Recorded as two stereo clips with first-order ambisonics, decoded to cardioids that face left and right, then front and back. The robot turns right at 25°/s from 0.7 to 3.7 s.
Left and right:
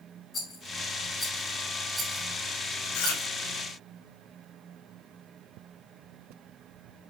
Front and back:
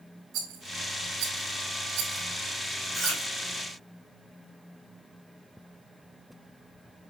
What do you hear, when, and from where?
0.3 s a rattle: 155° left, 4.5 m; by 3.3 s 145° right, 4.5 m
2.9 s chewing: 100° left, 3.5 m; by 3.2 s 105° left, 3.5 m